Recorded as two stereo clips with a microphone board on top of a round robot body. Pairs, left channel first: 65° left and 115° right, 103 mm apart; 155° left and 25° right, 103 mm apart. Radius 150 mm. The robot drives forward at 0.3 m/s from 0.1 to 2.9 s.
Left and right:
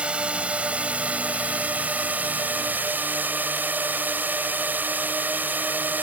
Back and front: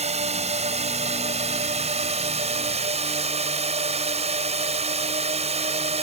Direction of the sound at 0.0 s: 35° right.